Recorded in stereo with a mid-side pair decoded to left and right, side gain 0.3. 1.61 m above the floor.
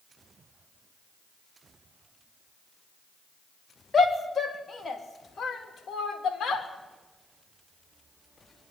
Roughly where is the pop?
I don't hear a pop.